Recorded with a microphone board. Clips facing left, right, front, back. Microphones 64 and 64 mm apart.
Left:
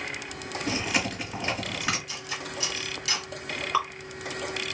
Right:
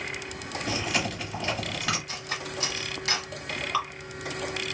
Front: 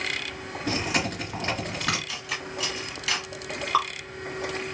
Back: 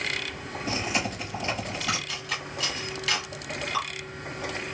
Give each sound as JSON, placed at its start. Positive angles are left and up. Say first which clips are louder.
{"t": 0.7, "sound": "chewing", "louder": "left 1 dB, front 2 dB", "azimuth_deg": 15, "distance_m": 2.0}
{"t": 2.1, "sound": "cutlery clinking", "louder": "right 1 dB, even", "azimuth_deg": -85, "distance_m": 1.0}
{"t": 3.7, "sound": "dripping", "louder": "left 3 dB, front 7 dB", "azimuth_deg": 20, "distance_m": 1.5}